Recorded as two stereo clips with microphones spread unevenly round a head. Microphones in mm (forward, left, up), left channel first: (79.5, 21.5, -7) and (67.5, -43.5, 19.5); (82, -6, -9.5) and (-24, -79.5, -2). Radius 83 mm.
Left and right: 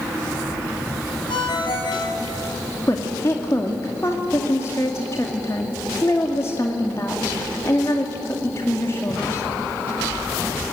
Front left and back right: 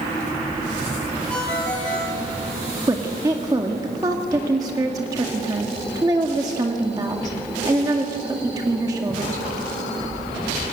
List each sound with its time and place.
1.3 s a ringtone: 120° left, 4 m
2.9 s a woman speaking: 145° left, 2.0 m